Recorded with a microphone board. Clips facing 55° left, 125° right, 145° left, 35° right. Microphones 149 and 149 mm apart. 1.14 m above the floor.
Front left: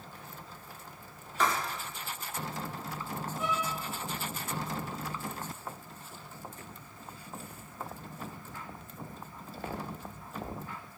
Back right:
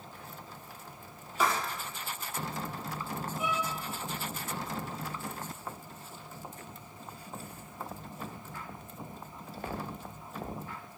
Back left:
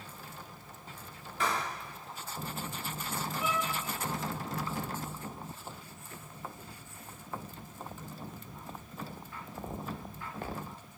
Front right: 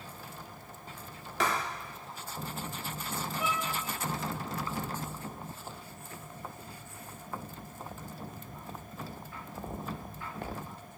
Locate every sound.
1.4 s writing: 45° right, 1.7 m
3.4 s a violin: 45° right, 3 m